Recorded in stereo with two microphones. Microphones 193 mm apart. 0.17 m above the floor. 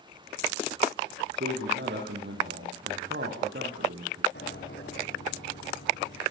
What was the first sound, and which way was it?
A man speaking, 65° right (ahead or behind).